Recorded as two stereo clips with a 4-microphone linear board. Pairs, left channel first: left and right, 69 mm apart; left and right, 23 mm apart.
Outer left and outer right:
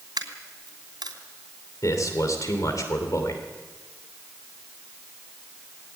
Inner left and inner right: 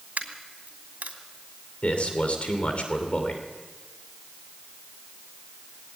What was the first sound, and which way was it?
A dropped coin, 80° right.